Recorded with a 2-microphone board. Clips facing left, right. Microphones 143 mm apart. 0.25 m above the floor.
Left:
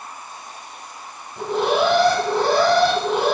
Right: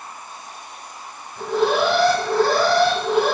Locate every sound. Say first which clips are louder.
1.4 s an alarm: even; 20° left (ahead or behind), 1.4 m